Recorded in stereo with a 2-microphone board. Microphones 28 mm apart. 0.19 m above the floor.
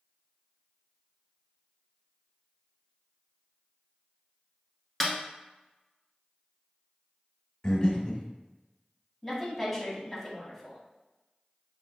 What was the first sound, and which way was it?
A snare drum, 10° left (ahead or behind).